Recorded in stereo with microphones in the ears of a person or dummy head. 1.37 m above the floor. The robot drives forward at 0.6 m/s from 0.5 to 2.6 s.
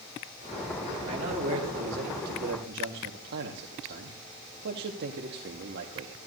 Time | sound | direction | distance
1.1 | a man speaking | 35° right (ahead or behind) | 2 m